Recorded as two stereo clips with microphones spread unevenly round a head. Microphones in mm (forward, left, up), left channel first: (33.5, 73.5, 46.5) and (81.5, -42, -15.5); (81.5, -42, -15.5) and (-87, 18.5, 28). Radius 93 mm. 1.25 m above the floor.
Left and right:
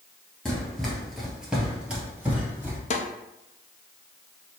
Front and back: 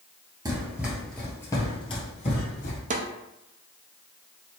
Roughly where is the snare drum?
Behind left.